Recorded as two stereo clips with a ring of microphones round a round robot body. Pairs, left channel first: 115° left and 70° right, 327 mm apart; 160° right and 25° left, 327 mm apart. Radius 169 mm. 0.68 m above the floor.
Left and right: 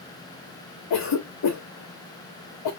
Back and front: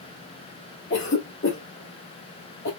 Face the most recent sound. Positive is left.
turn(degrees=145)